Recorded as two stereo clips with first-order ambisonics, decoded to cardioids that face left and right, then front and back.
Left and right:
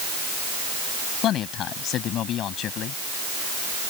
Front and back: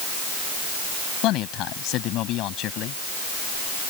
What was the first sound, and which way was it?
A man speaking, 40° left.